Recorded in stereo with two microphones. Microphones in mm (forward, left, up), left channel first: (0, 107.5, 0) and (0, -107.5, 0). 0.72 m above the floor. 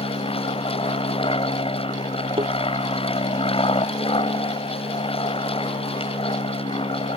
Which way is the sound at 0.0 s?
25° left (ahead or behind).